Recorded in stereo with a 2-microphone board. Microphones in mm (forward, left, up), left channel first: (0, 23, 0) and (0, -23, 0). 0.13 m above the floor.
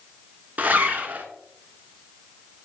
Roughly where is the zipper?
Right.